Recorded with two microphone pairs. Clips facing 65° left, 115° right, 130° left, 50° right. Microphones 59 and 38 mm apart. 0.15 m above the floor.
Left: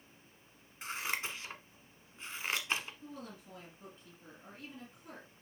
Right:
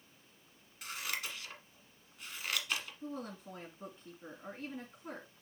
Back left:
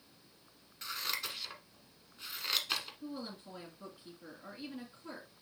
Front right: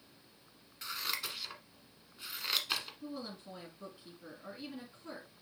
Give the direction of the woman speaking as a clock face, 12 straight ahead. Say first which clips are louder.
Right 5 dB, even; 5 o'clock.